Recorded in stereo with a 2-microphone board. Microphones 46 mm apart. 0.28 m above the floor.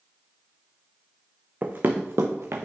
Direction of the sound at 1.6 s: 40° right (ahead or behind).